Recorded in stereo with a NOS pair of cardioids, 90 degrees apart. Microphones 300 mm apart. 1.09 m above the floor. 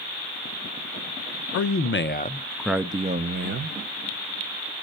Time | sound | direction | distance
1.5 | a man speaking | 55° left | 0.8 m